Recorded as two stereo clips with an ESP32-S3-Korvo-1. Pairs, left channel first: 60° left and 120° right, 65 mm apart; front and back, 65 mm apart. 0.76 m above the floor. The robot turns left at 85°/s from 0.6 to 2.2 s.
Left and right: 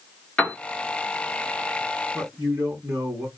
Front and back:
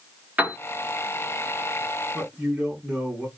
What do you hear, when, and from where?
0.4 s a piano: 125° left, 0.9 m
2.1 s a man speaking: 85° right, 1.7 m; by 3.3 s 90° right, 1.7 m